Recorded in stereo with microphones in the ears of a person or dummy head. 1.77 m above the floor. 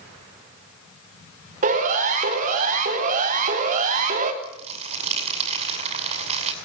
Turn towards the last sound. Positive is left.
turn(degrees=-35)  # may be behind; listen again after turning